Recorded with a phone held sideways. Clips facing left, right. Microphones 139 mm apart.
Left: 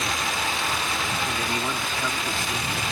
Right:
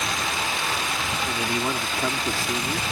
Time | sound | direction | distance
1.2 | a man speaking | 10° right (ahead or behind) | ?